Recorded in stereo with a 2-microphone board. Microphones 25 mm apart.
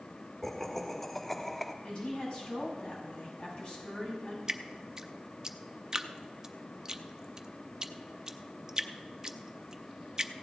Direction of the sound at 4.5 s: 20° right (ahead or behind).